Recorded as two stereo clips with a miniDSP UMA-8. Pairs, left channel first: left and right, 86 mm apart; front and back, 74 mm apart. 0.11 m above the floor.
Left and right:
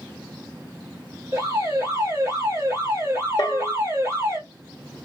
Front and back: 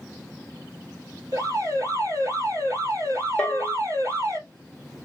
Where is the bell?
75° left, 1.1 m.